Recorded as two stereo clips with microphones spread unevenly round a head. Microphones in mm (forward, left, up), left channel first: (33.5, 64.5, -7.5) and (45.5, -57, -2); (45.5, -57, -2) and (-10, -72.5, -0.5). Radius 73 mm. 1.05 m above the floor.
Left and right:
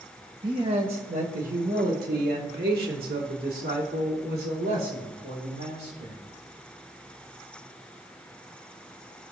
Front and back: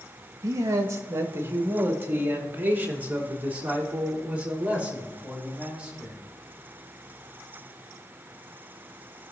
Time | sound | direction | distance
0.4 | a man speaking | 145° right | 1.5 m